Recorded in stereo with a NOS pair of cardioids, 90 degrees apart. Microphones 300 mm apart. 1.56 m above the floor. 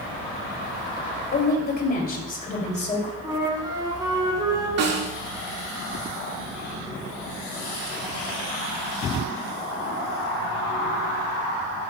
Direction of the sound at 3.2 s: 15° right.